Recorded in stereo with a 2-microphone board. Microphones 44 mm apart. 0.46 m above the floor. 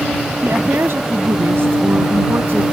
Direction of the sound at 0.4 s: 70° right (ahead or behind).